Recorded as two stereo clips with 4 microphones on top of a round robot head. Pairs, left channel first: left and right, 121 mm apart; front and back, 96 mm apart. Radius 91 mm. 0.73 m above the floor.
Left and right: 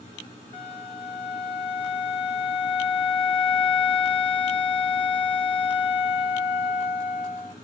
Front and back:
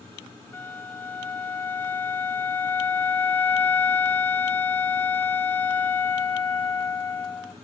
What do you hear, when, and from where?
0.5 s a flute: 65° left, 1.1 m